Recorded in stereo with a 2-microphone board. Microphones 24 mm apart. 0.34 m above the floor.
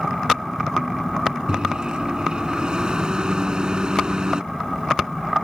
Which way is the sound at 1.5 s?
40° right (ahead or behind).